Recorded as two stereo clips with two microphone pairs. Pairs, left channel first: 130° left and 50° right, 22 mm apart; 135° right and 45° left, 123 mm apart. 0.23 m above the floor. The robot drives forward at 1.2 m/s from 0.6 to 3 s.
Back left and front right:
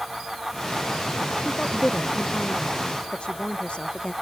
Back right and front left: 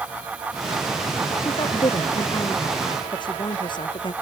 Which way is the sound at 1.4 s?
170° left.